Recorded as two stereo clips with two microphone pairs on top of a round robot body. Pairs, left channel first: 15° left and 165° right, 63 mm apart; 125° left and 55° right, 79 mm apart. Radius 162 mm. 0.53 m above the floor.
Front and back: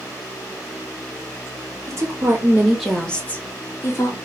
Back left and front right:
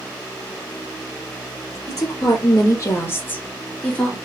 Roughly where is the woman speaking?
Behind.